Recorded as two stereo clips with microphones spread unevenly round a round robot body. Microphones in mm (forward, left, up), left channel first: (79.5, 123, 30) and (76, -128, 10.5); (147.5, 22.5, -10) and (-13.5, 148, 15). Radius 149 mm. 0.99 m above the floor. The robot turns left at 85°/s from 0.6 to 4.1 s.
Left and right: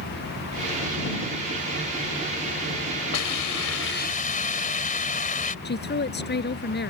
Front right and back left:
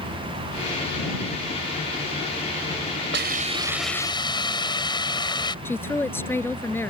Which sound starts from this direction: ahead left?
A woman speaking, at 5.7 s.